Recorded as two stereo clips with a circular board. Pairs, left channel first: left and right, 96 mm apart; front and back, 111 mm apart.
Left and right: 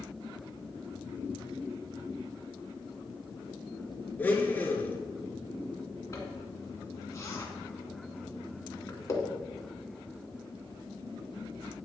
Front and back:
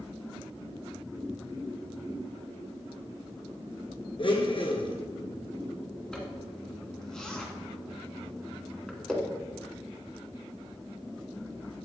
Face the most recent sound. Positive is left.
turn(degrees=80)